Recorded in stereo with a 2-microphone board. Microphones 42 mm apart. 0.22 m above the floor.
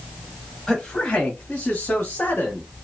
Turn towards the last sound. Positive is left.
turn(degrees=45)  # may be behind; listen again after turning